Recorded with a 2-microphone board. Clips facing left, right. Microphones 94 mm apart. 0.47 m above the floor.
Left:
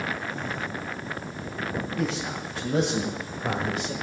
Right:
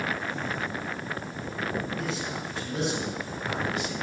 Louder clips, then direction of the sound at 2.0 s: Left 3 dB; 75° left (ahead or behind).